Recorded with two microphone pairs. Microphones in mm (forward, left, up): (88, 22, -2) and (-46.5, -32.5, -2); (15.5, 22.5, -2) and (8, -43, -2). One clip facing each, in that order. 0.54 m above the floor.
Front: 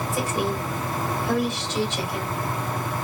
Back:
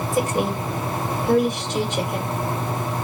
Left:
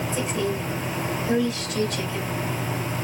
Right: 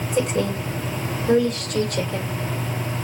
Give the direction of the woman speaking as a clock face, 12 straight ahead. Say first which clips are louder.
Back 4 dB, right 6 dB; 4 o'clock.